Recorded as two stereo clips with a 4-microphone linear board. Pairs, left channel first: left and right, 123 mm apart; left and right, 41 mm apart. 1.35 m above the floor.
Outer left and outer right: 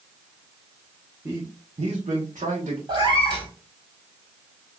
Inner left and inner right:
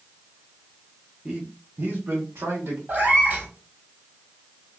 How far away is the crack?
I don't hear a crack.